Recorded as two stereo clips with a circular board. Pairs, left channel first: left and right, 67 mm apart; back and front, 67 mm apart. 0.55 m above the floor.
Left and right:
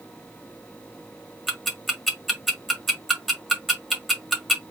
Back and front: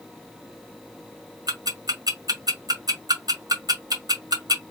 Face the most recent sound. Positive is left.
turn(degrees=0)